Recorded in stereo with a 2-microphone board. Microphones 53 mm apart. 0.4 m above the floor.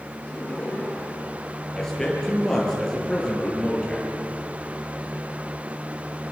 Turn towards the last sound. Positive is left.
turn(degrees=10)  # may be behind; listen again after turning